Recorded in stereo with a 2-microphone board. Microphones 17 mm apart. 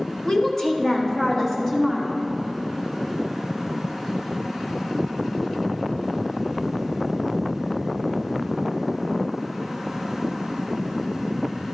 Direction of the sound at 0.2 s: 40° left (ahead or behind).